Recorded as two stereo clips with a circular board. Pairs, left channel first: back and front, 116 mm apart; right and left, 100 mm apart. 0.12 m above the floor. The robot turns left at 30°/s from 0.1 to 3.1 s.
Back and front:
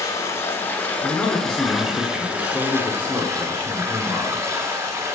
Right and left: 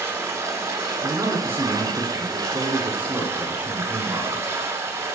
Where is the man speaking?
120° left, 1.1 m; by 4.5 s 55° left, 1.1 m.